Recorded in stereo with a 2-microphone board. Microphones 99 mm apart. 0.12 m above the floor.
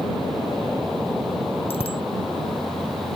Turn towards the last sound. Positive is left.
turn(degrees=75)  # may be behind; listen again after turning